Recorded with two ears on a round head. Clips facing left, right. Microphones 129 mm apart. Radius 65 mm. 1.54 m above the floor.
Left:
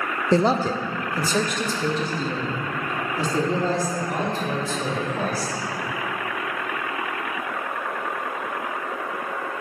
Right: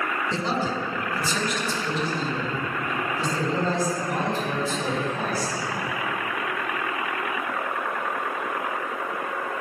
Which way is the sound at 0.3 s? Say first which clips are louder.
Left 10 dB; 40° left (ahead or behind).